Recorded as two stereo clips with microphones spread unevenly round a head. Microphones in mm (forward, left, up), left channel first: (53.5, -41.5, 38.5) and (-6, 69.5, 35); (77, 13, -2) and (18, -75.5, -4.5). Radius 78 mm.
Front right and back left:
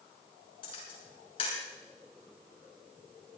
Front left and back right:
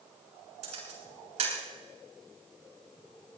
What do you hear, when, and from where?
0.6 s a camera shutter: 115° right, 7 m